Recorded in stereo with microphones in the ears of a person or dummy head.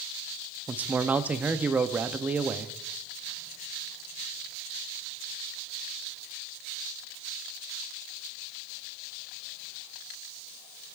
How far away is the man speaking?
About 0.6 m.